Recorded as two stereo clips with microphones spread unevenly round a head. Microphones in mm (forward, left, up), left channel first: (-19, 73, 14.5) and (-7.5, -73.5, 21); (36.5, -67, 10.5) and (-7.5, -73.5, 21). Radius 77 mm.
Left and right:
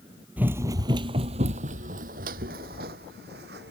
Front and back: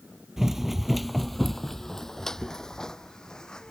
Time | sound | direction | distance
0.4 | running footsteps | 150° right | ?